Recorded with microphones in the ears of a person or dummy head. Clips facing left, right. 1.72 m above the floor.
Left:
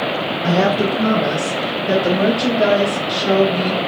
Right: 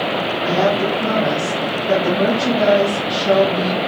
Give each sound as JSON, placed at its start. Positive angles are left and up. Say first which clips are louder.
{"t": 0.4, "sound": "a woman speaking", "louder": "left 1 dB", "side_deg": 55, "distance_m": 0.7}